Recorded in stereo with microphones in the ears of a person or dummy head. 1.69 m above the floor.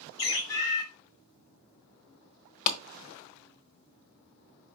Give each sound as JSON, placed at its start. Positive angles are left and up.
{"t": 0.2, "sound": "a bird", "side_deg": 60, "distance_m": 1.2}
{"t": 2.7, "sound": "a clap", "side_deg": 45, "distance_m": 1.1}